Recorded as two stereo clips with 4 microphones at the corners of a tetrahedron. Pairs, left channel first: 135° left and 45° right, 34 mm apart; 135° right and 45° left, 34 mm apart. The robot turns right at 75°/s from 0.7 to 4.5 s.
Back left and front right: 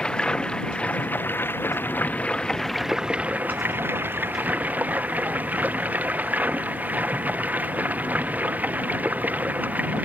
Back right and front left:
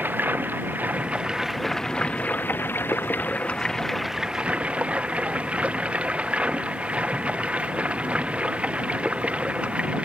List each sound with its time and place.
0.0 s running water: 70° left; by 10.1 s 5° right